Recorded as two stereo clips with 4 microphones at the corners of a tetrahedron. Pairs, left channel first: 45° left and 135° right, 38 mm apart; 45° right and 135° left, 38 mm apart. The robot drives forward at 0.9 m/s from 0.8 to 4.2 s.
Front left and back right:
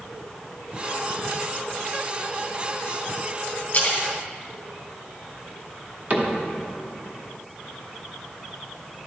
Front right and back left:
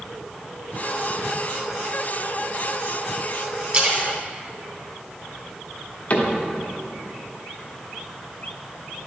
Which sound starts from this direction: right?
A cupboard door, at 6.1 s.